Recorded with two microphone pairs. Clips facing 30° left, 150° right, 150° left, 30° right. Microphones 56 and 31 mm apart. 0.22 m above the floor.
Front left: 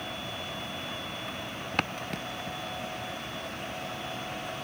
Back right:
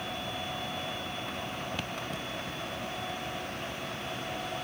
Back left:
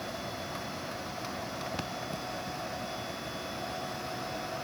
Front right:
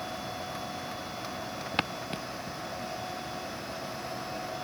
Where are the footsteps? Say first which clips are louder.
Front left 4 dB, front right 4 dB; straight ahead.